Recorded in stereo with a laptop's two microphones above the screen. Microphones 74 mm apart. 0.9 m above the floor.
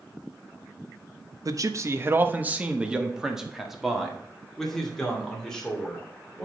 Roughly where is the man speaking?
Right.